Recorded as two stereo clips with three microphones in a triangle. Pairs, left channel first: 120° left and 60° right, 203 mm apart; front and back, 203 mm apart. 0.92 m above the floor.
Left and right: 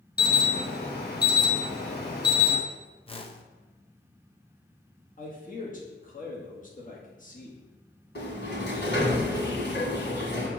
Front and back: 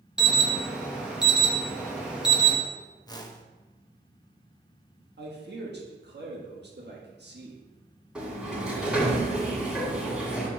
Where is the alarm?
95° left, 1.1 m.